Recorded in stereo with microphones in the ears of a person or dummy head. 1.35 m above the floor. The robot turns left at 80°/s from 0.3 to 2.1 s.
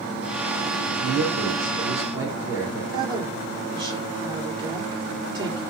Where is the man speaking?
80° right, 4 m; by 2.8 s 170° right, 4 m.